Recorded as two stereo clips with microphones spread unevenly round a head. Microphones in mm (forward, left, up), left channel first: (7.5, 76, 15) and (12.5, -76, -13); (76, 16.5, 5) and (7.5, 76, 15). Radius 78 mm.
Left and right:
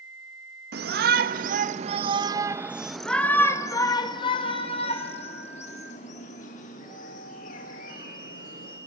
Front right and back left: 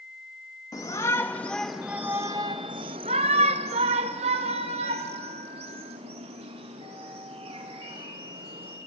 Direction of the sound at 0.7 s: 105° right.